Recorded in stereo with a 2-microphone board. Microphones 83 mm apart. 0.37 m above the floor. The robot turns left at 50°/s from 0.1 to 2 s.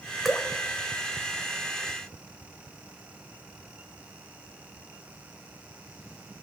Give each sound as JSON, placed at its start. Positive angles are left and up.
{"t": 0.2, "sound": "dripping", "side_deg": 0, "distance_m": 1.5}